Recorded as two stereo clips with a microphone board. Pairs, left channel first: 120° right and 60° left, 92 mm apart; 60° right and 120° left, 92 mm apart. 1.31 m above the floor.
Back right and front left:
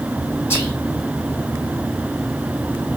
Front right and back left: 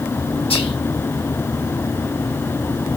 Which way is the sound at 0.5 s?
60° right.